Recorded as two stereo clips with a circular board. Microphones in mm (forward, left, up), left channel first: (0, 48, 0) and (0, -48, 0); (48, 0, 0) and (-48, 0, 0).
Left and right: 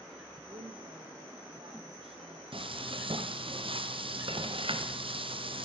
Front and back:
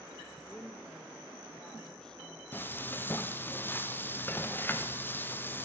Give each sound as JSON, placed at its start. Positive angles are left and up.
{"t": 0.5, "sound": "a woman speaking", "azimuth_deg": -80, "distance_m": 6.0}
{"t": 2.5, "sound": "frying", "azimuth_deg": -70, "distance_m": 2.0}